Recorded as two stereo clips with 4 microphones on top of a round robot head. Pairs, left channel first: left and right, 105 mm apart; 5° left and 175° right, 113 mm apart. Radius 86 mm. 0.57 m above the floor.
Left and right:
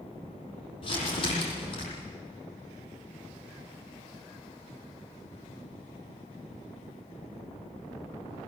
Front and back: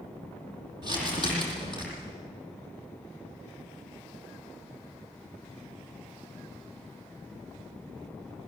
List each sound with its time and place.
0.8 s crumpling: 135° left, 9 m